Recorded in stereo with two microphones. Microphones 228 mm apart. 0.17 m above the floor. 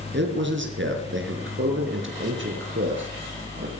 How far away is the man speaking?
About 3 m.